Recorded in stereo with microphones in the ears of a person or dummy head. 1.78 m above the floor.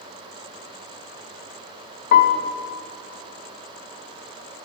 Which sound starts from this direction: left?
A piano, at 2.1 s.